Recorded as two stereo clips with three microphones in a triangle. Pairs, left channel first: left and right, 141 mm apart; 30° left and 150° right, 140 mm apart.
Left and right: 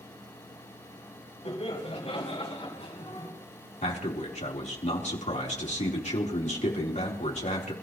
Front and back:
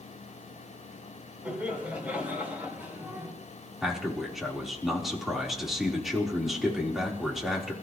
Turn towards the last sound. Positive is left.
turn(degrees=120)